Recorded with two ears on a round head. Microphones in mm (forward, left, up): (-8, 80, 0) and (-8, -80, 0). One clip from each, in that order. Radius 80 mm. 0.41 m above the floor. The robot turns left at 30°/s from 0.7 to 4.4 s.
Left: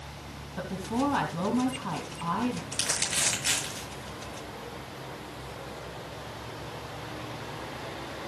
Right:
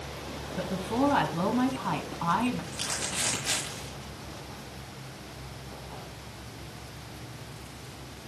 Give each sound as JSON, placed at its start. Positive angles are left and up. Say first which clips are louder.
{"t": 0.6, "sound": "a woman speaking", "louder": "right 2 dB", "azimuth_deg": 10, "distance_m": 3.5}
{"t": 2.7, "sound": "crumpling", "louder": "left 3 dB", "side_deg": 60, "distance_m": 7.5}